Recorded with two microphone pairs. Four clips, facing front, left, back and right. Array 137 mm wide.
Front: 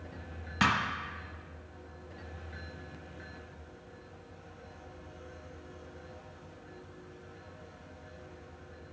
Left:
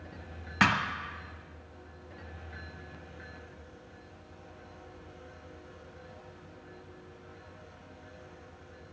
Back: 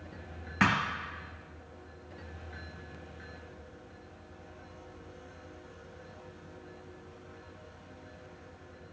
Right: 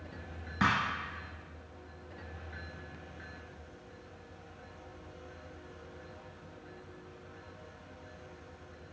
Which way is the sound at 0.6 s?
100° left.